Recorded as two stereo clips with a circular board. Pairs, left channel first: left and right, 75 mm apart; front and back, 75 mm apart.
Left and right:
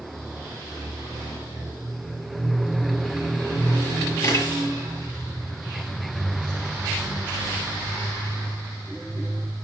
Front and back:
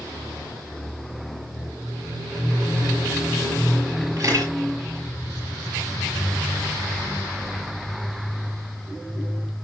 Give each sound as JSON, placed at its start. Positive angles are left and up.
{"t": 4.2, "sound": "a camera shutter", "azimuth_deg": 135, "distance_m": 7.0}